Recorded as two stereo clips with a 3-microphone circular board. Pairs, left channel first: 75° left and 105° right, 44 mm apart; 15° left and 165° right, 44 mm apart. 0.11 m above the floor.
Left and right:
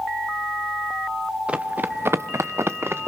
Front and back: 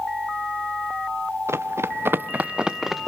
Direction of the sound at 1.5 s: 165° right.